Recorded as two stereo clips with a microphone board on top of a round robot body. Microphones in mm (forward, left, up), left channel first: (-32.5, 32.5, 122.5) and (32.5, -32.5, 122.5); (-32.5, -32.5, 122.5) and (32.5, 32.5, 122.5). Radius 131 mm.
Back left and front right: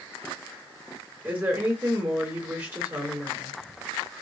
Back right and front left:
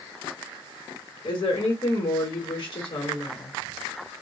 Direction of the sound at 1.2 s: 105° right.